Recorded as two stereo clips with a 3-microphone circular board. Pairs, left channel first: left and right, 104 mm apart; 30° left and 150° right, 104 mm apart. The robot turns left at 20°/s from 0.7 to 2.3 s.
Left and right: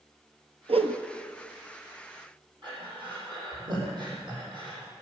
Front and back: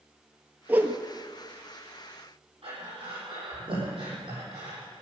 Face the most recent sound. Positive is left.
turn(degrees=-130)